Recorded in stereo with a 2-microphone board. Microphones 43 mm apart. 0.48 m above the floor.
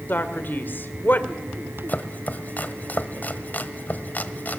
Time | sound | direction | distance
0.1 | a man speaking | 50° left (ahead or behind) | 2 m
1.9 | chopping | 40° left (ahead or behind) | 1.2 m